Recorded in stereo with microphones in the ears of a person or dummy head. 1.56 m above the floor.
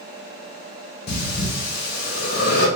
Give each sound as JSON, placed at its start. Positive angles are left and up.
{"t": 1.1, "sound": "breathing", "side_deg": 50, "distance_m": 1.2}